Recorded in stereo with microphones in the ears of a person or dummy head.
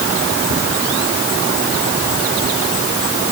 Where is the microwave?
No microwave in this recording.